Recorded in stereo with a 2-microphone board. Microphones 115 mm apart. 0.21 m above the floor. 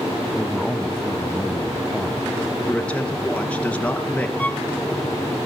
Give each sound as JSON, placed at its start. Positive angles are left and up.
{"t": 0.3, "sound": "a man speaking", "side_deg": 5, "distance_m": 1.0}
{"t": 2.7, "sound": "a man speaking", "side_deg": 10, "distance_m": 2.5}
{"t": 4.4, "sound": "a violin", "side_deg": 15, "distance_m": 0.9}